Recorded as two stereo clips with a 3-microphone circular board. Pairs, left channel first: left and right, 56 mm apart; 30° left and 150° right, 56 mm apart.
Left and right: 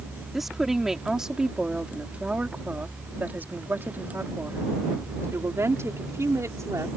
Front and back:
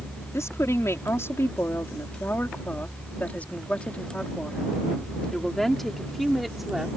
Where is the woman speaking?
5° right; by 6.9 s 65° right.